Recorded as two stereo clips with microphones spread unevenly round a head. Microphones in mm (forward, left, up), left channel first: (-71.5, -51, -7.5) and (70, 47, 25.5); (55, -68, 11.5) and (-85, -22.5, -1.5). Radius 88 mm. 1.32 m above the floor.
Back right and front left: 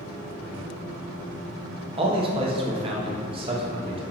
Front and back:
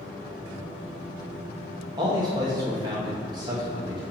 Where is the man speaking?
100° left, 1.1 m.